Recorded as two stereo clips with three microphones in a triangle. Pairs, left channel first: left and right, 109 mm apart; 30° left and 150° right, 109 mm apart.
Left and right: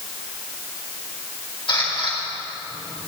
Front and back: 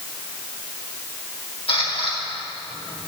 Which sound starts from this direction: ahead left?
A camera shutter, at 1.7 s.